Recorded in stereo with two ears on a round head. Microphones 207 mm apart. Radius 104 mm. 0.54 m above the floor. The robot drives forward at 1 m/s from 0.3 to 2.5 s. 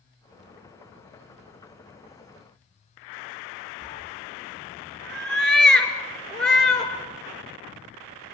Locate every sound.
3.8 s a cat meowing: centre (ahead or behind), 2 m